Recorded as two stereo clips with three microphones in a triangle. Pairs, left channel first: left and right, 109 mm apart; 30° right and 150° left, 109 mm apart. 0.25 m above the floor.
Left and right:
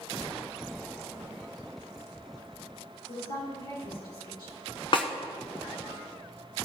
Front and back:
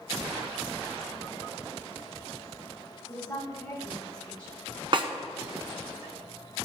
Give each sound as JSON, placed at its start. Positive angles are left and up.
{"t": 3.1, "sound": "a woman speaking", "azimuth_deg": 45, "distance_m": 5.0}
{"t": 4.9, "sound": "a snare drum", "azimuth_deg": 120, "distance_m": 1.2}